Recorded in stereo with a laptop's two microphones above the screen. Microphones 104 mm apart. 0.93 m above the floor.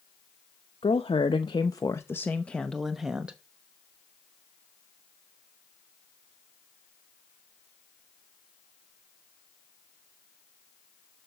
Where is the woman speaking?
60° left (ahead or behind), 1.0 m; by 3.4 s 10° right (ahead or behind), 1.2 m.